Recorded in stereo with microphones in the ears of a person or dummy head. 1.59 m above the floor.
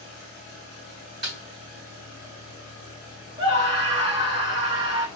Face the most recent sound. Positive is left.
turn(degrees=-30)  # may be behind; listen again after turning